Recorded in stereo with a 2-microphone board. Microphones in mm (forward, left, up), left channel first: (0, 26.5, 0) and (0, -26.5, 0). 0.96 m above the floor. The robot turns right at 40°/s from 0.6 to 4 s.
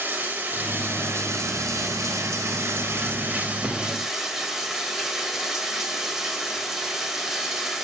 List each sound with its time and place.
0.0 s running water: 145° right, 1.5 m; by 7.8 s 10° right, 1.5 m